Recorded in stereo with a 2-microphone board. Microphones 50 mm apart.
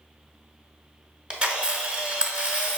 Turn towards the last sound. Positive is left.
turn(degrees=-20)  # may be behind; listen again after turning